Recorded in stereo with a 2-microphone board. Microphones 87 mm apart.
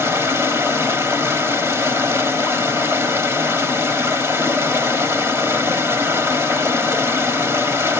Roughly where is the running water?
Right.